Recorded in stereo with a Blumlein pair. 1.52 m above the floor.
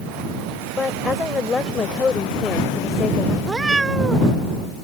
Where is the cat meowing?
10° right.